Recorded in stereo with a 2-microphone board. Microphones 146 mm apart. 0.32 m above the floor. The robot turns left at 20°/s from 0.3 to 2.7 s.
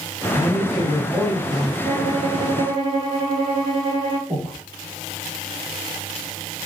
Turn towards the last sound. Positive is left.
turn(degrees=-20)  # may be behind; listen again after turning